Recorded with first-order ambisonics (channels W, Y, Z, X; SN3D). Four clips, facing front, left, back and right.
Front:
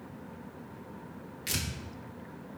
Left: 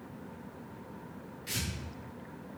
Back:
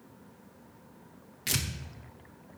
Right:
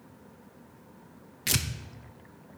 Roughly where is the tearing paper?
Right.